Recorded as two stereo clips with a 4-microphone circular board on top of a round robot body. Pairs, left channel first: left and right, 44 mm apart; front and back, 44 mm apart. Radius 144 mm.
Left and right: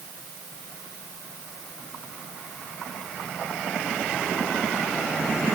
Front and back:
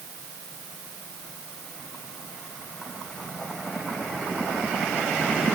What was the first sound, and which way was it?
Only background noise.